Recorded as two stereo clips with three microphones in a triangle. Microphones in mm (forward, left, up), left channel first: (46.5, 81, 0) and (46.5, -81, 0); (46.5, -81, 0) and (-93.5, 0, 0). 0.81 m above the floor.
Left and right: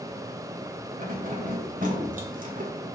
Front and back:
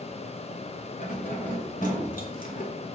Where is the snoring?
I don't hear snoring.